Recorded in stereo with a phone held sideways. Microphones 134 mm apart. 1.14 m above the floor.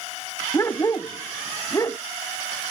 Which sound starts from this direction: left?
A dog barking, at 0.5 s.